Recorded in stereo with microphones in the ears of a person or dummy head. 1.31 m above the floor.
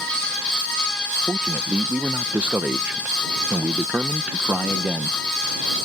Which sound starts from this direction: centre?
A man speaking, at 1.3 s.